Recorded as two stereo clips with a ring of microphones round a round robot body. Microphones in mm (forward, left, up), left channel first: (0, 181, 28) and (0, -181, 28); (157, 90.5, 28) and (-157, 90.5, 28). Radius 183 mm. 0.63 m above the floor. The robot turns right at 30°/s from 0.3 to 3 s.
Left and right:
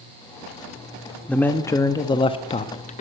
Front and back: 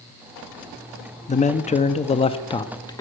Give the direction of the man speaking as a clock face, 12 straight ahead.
12 o'clock.